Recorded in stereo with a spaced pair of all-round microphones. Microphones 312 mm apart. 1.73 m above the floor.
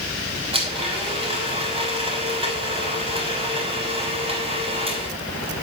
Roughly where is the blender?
Centre.